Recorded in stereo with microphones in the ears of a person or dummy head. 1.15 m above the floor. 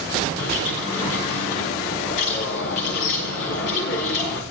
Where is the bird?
70° left (ahead or behind), 3 m.